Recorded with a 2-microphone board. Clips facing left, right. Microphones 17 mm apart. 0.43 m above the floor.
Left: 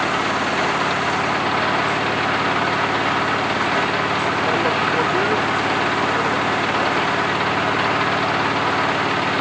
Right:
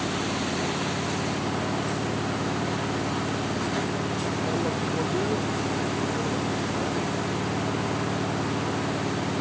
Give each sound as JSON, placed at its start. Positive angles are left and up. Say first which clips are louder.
{"t": 0.0, "sound": "an engine running", "louder": "left 8 dB", "side_deg": 60}